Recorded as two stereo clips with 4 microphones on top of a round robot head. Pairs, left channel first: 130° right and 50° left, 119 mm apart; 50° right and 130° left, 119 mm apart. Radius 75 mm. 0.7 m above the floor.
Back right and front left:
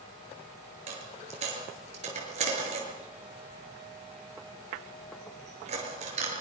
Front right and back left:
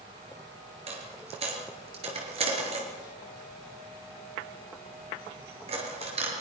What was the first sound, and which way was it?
A dropped coin, 85° left.